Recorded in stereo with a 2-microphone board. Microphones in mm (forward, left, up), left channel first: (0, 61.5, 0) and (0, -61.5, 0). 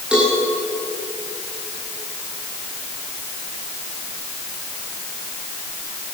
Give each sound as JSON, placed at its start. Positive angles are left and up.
{"t": 0.1, "sound": "a cowbell", "side_deg": -5, "distance_m": 9.5}